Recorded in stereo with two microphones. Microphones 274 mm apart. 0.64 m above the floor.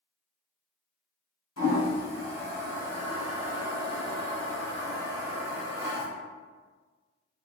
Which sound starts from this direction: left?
A toilet flushing, at 1.6 s.